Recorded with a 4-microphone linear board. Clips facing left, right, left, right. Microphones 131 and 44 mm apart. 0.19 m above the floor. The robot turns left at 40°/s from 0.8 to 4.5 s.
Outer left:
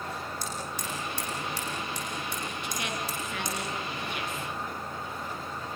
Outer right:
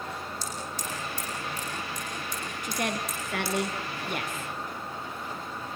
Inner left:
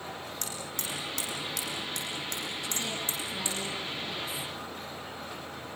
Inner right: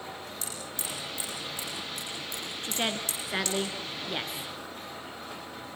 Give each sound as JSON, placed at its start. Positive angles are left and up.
{"t": 0.4, "sound": "hammering", "side_deg": 55, "distance_m": 9.5}
{"t": 2.6, "sound": "a woman speaking", "side_deg": -45, "distance_m": 2.5}